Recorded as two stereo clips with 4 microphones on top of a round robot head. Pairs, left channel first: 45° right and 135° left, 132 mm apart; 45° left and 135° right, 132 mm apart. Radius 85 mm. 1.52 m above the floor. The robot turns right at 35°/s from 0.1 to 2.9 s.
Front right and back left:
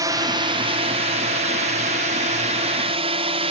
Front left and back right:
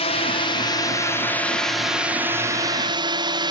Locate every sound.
0.0 s a drone: 75° left; by 3.5 s 175° left